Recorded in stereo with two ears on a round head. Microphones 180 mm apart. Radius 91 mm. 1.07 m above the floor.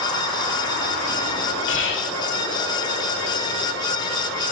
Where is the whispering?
65° left (ahead or behind), 2.5 m.